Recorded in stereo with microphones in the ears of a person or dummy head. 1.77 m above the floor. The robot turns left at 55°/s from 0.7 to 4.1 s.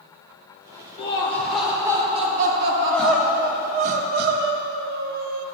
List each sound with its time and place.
1.0 s laughter: 35° left, 1.3 m; by 3.7 s 115° right, 1.3 m
2.7 s crying: 25° left, 0.7 m; by 5.5 s 55° right, 0.7 m